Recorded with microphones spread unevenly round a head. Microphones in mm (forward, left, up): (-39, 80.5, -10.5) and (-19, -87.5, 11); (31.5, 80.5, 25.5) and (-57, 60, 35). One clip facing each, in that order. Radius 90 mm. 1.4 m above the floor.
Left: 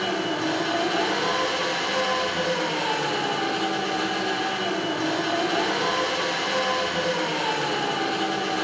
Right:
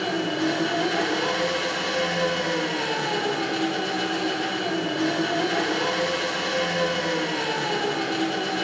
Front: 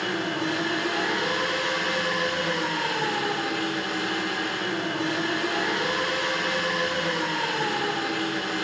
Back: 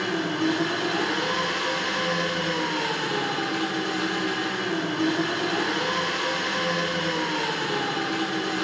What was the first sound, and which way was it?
An engine running, 145° right.